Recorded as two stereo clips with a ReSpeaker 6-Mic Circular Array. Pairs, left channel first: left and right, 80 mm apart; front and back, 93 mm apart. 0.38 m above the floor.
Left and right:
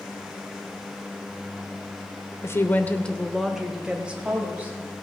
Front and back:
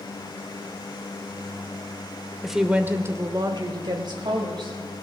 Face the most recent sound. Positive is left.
turn(degrees=-155)